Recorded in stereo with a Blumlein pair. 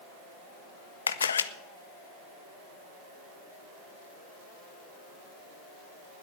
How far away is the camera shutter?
About 0.8 m.